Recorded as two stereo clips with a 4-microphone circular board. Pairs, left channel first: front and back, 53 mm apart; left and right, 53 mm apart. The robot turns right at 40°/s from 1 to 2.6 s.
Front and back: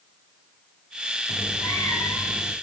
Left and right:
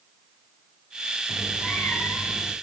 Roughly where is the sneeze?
No sneeze in this recording.